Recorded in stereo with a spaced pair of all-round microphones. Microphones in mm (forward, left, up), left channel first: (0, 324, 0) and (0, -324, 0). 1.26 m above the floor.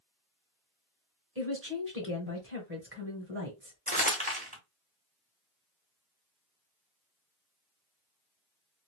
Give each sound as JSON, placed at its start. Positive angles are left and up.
{"t": 1.4, "sound": "a woman speaking", "side_deg": -20, "distance_m": 1.2}
{"t": 3.9, "sound": "crumpling", "side_deg": -10, "distance_m": 1.3}